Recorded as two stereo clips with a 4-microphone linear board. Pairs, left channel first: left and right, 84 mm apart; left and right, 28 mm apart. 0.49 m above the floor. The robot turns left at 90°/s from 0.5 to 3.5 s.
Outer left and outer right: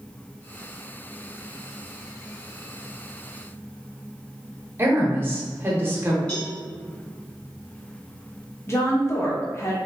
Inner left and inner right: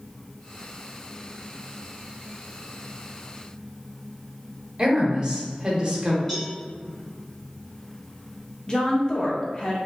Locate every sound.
4.8 s a woman speaking: 25° right (ahead or behind), 0.9 m
6.3 s a cowbell: 10° left (ahead or behind), 1.5 m
8.7 s a woman speaking: 30° left (ahead or behind), 0.8 m